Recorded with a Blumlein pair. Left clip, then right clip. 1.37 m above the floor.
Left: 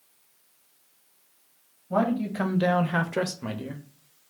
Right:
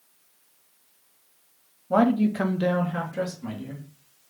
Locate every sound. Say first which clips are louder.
1.9 s a man speaking: right 4 dB; 25° right, 0.7 m; by 3.8 s 75° left, 0.8 m